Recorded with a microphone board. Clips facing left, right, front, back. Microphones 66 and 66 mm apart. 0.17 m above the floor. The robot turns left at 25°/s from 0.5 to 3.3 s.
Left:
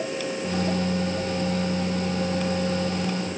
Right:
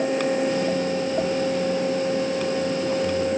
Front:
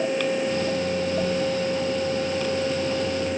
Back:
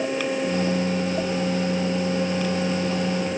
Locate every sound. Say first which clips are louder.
1.2 s a sliding door: right 5 dB, front 2 dB; 65° right, 4.5 m; by 1.3 s 70° right, 4.5 m